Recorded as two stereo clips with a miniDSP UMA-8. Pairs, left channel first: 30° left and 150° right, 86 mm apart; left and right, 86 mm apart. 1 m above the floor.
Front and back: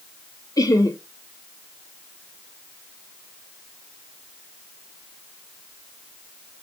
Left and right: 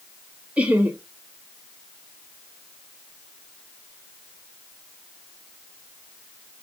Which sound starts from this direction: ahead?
Laughter, at 0.6 s.